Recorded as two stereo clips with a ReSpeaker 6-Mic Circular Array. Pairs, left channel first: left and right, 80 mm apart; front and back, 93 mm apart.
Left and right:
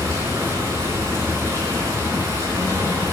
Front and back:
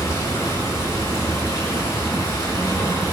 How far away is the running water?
About 6 m.